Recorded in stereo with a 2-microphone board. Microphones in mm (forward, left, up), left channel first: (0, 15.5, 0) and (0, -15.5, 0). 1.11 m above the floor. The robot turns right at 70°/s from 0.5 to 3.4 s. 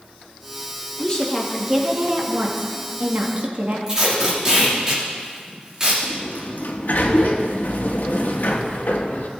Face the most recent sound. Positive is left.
turn(degrees=75)  # may be behind; listen again after turning